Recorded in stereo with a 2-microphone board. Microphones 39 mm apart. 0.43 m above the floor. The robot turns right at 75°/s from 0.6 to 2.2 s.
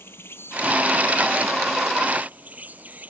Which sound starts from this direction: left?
An insect, at 0.0 s.